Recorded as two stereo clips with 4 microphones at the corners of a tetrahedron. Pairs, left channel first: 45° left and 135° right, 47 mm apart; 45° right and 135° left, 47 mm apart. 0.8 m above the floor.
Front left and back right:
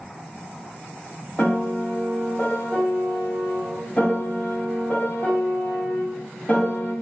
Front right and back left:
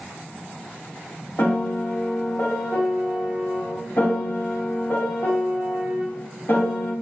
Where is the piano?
20° right, 1.1 m.